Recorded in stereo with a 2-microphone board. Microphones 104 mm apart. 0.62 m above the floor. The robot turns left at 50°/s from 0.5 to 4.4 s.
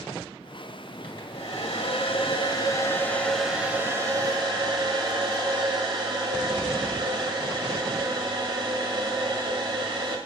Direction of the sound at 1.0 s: 120° left.